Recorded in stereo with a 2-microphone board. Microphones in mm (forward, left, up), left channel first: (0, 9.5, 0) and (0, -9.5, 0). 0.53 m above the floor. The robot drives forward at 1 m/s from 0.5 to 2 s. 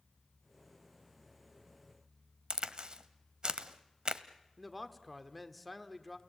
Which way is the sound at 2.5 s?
50° right (ahead or behind).